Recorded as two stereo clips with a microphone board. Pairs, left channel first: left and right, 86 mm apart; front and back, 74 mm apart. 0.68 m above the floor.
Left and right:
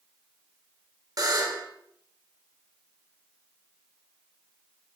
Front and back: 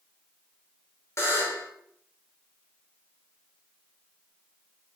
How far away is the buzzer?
About 1.6 m.